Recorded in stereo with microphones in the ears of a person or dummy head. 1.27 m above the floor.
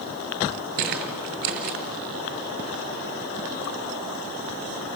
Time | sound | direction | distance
0.8 | footsteps | 45° right (ahead or behind) | 1.7 m